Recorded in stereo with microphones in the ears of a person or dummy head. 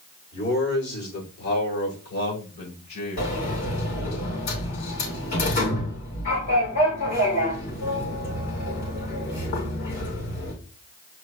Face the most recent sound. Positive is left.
turn(degrees=60)  # may be behind; listen again after turning